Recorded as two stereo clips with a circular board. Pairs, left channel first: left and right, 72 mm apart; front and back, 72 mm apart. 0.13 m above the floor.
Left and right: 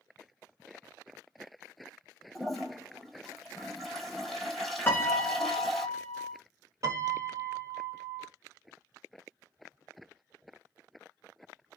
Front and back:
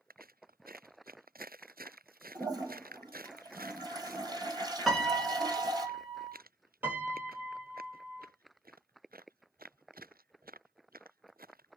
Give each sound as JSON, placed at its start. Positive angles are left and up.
{"t": 2.4, "sound": "a toilet flushing", "azimuth_deg": 180, "distance_m": 1.2}
{"t": 4.9, "sound": "a piano", "azimuth_deg": 90, "distance_m": 0.8}
{"t": 6.8, "sound": "a piano", "azimuth_deg": -125, "distance_m": 1.5}